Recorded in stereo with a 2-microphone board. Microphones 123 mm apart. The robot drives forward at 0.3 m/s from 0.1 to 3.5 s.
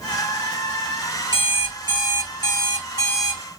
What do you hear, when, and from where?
1.3 s an alarm clock: 35° right (ahead or behind), 1.5 m; by 3.4 s 25° right (ahead or behind), 2 m